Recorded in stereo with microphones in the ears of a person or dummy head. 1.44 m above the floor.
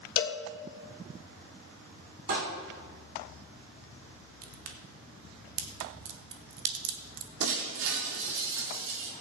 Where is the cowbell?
60° left (ahead or behind), 1.2 m.